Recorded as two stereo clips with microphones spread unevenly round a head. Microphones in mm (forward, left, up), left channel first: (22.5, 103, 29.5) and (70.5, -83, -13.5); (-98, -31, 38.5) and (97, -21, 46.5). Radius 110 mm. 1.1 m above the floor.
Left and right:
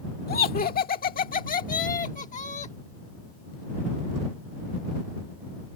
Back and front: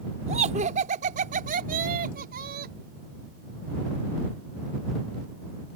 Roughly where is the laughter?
Ahead left.